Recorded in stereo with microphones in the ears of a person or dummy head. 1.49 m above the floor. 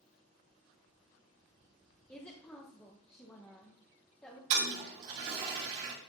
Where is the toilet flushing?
45° right (ahead or behind), 1.9 m.